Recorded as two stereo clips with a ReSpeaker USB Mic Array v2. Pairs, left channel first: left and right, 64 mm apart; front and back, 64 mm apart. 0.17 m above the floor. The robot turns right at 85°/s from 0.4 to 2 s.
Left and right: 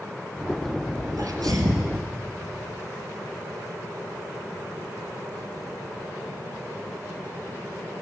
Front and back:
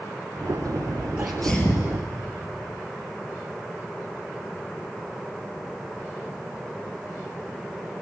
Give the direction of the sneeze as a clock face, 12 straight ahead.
4 o'clock.